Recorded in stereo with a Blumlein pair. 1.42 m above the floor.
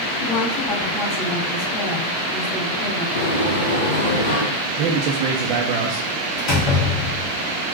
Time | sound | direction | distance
0.2 | a woman speaking | 20° left | 2.5 m
3.1 | a sliding door | 60° left | 1.2 m
4.8 | a man speaking | 40° right | 0.5 m
6.4 | a door slam | 25° left | 1.4 m